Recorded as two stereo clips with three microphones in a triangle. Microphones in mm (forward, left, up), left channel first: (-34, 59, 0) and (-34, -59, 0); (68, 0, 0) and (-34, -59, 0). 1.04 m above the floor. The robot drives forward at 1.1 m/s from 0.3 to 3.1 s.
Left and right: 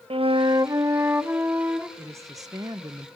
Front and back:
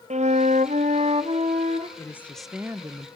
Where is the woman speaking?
30° right, 1.0 m; by 3.1 s 145° right, 0.9 m.